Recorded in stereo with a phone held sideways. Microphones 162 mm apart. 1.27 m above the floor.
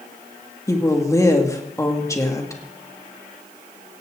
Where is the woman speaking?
20° left (ahead or behind), 2 m.